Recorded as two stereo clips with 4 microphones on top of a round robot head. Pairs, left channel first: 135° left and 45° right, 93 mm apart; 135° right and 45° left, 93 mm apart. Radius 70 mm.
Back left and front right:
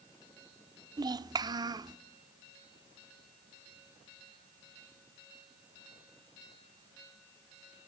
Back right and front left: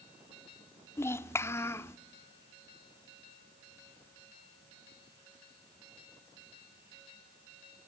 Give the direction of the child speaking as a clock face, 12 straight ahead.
3 o'clock.